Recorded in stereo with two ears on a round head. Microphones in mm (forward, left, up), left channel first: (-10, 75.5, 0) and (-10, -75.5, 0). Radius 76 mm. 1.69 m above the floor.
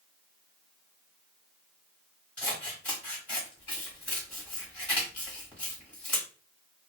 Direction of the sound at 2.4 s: 10° left (ahead or behind).